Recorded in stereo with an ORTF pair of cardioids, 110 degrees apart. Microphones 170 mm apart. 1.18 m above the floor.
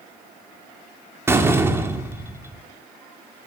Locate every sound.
1.3 s a door slam: 15° right, 1.9 m